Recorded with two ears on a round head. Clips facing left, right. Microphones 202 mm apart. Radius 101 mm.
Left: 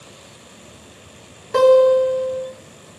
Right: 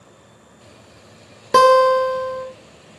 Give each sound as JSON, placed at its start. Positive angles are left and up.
{"t": 1.5, "sound": "a guitar", "side_deg": -60, "distance_m": 0.6}